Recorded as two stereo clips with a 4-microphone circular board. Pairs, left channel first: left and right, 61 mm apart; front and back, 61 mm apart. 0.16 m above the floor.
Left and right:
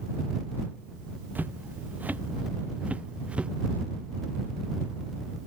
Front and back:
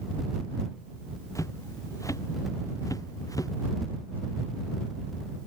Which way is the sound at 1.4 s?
30° right.